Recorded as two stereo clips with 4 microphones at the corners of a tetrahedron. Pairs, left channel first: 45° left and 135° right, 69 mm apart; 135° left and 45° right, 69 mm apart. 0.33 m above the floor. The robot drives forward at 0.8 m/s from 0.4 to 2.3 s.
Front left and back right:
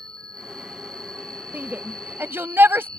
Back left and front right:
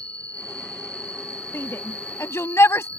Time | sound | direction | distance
0.0 | an insect | 150° right | ?
1.5 | a shout | 170° left | ?